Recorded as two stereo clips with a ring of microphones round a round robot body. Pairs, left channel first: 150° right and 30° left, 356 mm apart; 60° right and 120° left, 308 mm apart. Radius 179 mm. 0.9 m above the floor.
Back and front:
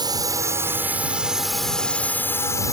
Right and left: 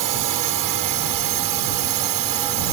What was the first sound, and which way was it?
A drone, 110° left.